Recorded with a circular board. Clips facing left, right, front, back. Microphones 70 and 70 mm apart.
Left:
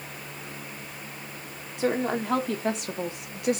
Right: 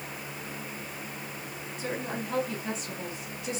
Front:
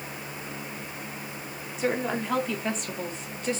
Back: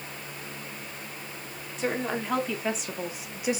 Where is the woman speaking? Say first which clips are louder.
Left 9 dB, front 2 dB; 90° left, 2 m; by 3.6 s 105° left, 1.2 m.